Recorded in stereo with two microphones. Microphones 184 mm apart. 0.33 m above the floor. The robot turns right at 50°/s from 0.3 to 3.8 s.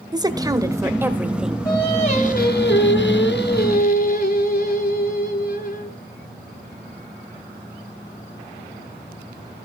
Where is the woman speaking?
20° right (ahead or behind), 1.4 m; by 1.6 s centre (ahead or behind), 1.4 m.